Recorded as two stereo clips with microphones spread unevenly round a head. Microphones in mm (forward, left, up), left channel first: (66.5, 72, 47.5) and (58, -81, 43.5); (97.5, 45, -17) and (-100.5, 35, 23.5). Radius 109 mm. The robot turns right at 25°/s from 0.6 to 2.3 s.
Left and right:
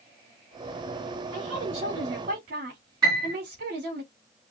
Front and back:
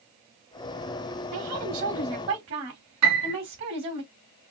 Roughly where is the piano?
Behind.